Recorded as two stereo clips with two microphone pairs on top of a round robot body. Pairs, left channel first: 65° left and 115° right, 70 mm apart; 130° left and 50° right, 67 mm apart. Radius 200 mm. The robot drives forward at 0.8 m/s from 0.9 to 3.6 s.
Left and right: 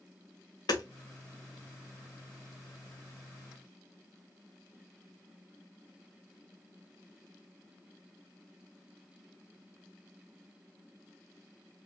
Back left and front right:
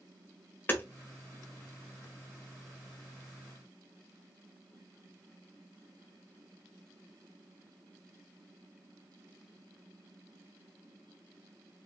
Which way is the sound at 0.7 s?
70° left.